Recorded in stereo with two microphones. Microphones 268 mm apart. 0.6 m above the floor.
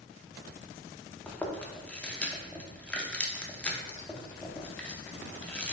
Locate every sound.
1.3 s chewing: 5° left (ahead or behind), 0.6 m